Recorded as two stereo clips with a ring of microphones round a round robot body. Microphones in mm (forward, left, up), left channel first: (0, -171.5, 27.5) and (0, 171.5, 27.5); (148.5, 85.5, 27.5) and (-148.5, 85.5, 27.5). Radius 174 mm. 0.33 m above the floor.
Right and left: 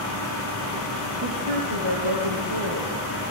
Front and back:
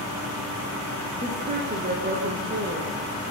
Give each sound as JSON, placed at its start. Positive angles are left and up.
{"t": 1.2, "sound": "a woman speaking", "azimuth_deg": 115, "distance_m": 6.5}